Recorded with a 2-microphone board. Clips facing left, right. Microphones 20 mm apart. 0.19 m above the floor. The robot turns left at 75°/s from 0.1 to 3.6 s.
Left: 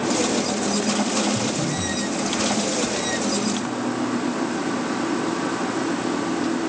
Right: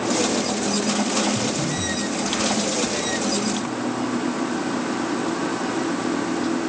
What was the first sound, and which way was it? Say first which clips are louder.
Breathing: even; 35° left (ahead or behind).